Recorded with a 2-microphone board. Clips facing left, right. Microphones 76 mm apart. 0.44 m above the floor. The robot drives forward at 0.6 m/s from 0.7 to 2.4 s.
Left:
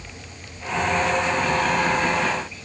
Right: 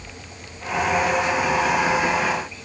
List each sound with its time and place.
Only background noise.